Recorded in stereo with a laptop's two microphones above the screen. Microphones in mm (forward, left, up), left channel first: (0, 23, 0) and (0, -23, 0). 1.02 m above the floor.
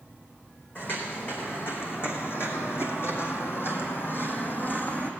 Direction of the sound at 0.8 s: 45° left (ahead or behind).